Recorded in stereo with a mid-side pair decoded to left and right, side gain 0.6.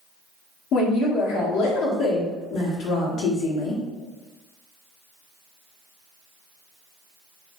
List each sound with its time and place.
0.7 s a woman speaking: 65° left, 0.9 m